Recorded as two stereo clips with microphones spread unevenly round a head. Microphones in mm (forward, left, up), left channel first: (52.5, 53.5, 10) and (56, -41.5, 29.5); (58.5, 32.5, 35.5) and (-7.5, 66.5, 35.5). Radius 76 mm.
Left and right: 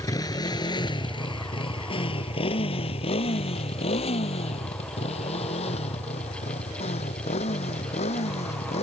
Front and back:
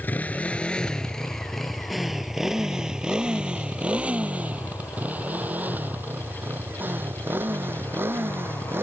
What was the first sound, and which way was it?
A motorcycle, 40° left.